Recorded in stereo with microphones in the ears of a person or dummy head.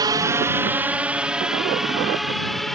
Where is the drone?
25° right (ahead or behind); by 2.8 s centre (ahead or behind).